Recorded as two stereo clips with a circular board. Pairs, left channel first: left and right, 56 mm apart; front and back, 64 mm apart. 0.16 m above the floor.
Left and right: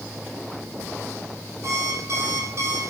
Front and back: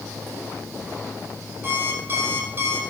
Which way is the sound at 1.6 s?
125° right.